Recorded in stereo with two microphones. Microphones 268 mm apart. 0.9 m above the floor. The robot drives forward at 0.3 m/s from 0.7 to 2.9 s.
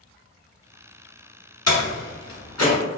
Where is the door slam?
70° left (ahead or behind), 1.3 m; by 2.8 s 85° left, 1.2 m.